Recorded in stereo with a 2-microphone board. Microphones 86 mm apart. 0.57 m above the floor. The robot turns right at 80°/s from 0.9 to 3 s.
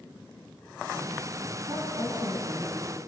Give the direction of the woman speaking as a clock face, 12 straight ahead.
3 o'clock.